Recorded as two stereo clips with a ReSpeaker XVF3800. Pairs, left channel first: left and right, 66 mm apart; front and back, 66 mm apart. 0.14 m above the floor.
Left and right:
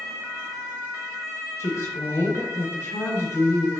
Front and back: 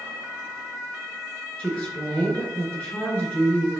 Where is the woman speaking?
70° left, 2.5 m.